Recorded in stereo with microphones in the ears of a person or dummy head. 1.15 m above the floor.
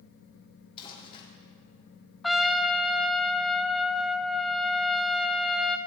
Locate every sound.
0.8 s crumpling: 30° left (ahead or behind), 3 m
2.2 s a trumpet: centre (ahead or behind), 0.7 m